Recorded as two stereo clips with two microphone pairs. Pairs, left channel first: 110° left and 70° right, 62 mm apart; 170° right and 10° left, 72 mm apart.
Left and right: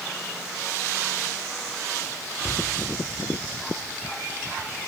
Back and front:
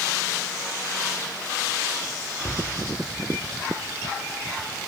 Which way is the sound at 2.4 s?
145° right.